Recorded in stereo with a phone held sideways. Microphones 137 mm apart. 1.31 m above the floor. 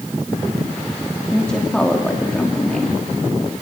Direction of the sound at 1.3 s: 5° left (ahead or behind).